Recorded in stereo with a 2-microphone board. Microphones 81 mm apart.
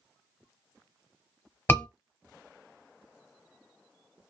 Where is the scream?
30° left (ahead or behind), 1.2 m.